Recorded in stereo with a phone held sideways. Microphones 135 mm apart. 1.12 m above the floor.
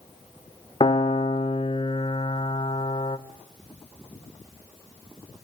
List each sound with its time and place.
0.8 s a piano: 40° left (ahead or behind), 1.1 m